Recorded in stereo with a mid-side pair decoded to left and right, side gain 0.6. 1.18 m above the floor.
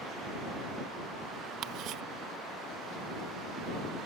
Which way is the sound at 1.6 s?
65° right.